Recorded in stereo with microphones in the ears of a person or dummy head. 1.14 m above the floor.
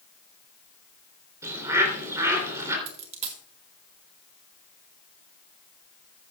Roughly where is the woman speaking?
I don't hear a woman speaking.